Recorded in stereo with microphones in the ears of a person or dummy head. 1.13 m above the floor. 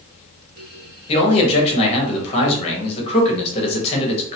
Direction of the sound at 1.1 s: 35° left (ahead or behind).